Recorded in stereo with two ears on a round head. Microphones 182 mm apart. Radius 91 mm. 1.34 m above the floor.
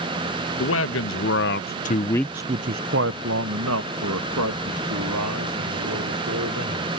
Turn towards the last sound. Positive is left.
turn(degrees=-90)